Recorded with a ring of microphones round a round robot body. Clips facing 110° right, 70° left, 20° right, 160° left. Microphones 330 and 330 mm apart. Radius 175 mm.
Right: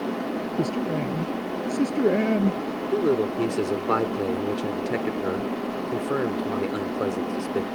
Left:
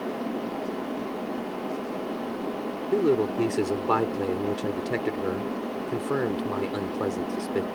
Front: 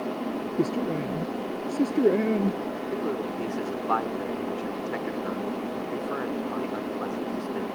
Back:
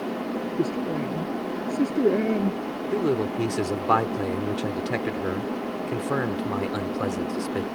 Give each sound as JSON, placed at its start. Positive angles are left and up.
{"t": 0.6, "sound": "a man speaking", "azimuth_deg": -110}
{"t": 2.9, "sound": "a man speaking", "azimuth_deg": 150}